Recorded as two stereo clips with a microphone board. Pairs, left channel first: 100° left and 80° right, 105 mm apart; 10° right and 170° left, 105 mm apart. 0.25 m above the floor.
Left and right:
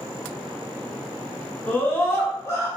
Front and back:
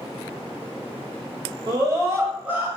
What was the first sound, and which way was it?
A scream, 160° left.